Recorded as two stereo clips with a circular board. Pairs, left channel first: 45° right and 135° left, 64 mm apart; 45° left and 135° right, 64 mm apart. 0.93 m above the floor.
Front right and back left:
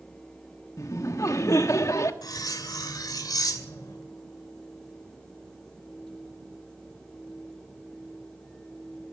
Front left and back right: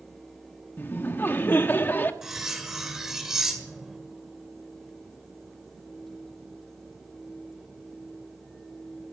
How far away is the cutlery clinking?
About 2 m.